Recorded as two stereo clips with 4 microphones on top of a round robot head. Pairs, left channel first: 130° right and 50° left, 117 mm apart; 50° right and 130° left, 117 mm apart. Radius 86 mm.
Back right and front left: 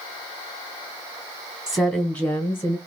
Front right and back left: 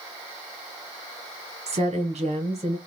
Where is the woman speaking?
150° left, 1.5 m; by 2.8 s 165° left, 2.5 m.